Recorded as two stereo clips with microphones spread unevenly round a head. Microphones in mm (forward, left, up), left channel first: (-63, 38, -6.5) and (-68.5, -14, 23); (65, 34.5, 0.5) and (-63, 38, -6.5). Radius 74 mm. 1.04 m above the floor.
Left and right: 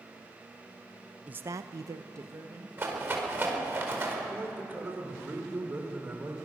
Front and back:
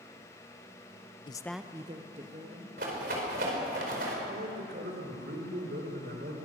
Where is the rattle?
145° right, 4.5 m.